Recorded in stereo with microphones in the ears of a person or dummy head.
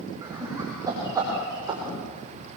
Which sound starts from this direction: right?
Laughter, at 0.2 s.